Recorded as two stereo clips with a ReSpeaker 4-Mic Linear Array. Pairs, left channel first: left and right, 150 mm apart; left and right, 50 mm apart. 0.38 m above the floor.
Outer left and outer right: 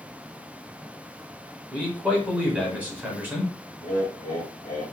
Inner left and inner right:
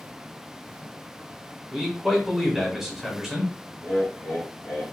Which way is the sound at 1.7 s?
10° right (ahead or behind).